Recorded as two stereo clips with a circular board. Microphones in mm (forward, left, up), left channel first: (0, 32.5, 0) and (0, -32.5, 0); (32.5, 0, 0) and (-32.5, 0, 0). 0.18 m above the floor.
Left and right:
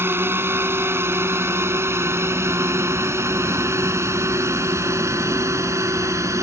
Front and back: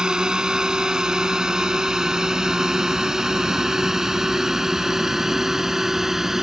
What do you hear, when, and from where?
0.0 s a drone: 110° right; by 6.4 s 100° right